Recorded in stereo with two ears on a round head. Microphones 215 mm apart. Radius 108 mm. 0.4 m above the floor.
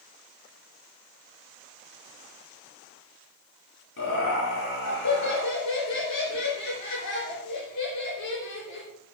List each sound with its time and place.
4.0 s laughter: 80° left, 4.5 m